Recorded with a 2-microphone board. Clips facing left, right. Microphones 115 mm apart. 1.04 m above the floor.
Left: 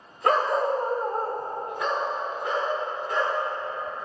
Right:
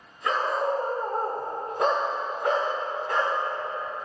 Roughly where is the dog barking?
Left.